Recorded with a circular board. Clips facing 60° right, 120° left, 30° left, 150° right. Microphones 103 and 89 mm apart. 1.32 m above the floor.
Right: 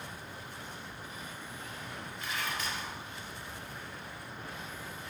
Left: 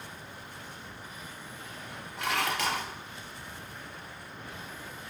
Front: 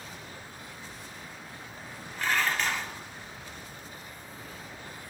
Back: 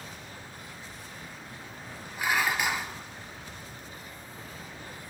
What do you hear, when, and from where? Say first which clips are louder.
2.2 s dishes clattering: left 8 dB, back 1 dB; 130° left, 2.5 m